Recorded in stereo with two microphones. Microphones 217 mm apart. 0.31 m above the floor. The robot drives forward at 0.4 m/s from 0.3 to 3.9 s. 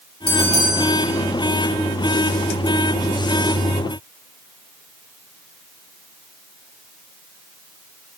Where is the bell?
85° right, 2 m.